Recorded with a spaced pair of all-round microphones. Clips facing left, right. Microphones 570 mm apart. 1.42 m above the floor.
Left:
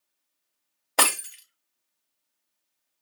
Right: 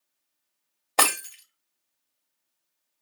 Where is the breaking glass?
40° left (ahead or behind), 1.1 m.